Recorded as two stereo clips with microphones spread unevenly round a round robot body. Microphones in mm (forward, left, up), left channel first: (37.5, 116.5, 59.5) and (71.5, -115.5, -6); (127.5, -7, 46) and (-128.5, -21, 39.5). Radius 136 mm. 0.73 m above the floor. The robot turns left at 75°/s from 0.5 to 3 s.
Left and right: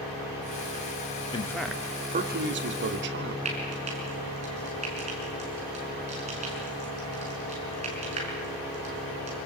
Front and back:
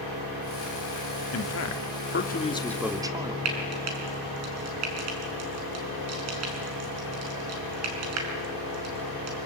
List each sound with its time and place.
1.3 s a man speaking: 25° left, 2 m; by 3.4 s 100° right, 2 m
3.5 s frying: 150° right, 5 m